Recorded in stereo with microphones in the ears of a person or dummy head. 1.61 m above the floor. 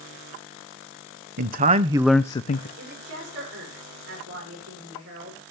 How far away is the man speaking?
About 0.9 m.